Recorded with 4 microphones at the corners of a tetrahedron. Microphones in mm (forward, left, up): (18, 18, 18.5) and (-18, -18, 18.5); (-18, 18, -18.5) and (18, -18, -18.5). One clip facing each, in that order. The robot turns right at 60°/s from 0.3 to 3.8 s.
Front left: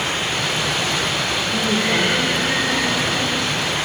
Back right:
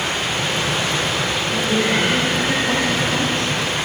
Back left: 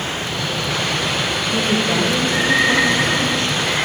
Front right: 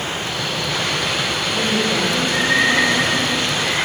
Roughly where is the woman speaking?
Behind left.